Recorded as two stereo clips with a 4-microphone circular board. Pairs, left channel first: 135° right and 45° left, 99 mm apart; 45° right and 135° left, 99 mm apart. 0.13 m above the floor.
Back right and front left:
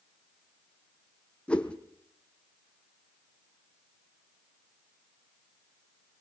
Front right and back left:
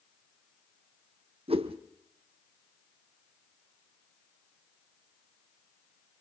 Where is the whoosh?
145° left, 1.2 m.